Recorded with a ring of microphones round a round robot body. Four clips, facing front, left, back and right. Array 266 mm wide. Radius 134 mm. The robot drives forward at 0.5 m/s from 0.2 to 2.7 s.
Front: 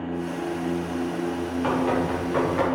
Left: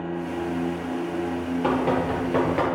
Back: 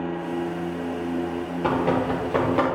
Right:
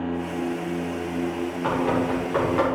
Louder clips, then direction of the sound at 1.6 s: Even, back 2 dB; 130° left.